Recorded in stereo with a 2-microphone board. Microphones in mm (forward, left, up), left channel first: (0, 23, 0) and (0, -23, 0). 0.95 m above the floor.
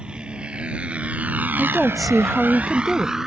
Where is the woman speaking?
Centre (ahead or behind).